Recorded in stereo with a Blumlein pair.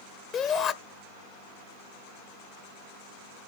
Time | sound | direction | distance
0.3 | a shout | 35° left | 0.6 m